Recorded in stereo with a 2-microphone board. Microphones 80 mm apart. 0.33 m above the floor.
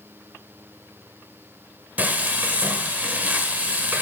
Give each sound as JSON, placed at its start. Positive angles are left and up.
{"t": 2.0, "sound": "frying", "side_deg": -20, "distance_m": 1.0}